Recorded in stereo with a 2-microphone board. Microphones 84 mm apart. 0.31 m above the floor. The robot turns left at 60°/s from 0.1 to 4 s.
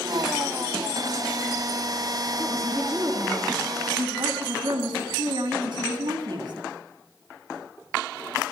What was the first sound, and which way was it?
A woman speaking, 20° left.